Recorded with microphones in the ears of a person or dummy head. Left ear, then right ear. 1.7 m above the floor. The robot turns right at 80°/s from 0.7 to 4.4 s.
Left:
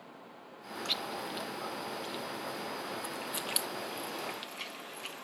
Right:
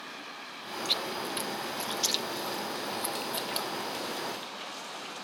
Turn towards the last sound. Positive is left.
turn(degrees=85)